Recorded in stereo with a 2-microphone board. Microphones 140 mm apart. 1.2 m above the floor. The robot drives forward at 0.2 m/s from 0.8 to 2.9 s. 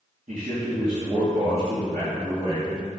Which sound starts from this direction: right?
A man speaking, at 0.3 s.